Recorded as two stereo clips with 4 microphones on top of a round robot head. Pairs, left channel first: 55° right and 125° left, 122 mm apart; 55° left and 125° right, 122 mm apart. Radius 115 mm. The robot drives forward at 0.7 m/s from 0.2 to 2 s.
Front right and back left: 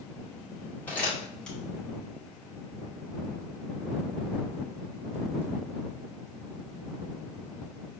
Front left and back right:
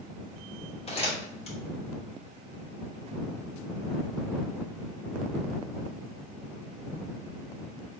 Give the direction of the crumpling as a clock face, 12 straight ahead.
11 o'clock.